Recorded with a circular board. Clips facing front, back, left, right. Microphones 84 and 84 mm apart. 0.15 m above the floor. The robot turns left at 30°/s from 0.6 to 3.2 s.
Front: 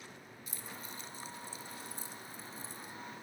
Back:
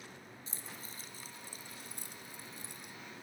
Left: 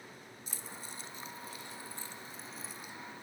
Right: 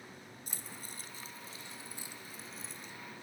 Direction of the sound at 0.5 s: 120° right.